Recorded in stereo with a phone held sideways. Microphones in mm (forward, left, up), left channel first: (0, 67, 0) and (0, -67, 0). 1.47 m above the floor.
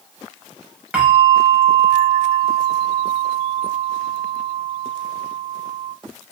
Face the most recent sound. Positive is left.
turn(degrees=-10)  # may be behind; listen again after turning